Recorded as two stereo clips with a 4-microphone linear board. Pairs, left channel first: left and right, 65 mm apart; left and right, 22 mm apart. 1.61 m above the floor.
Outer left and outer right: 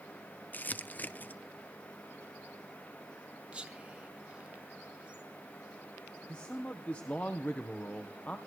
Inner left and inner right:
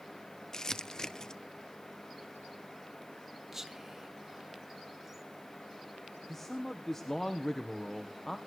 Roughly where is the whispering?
Centre.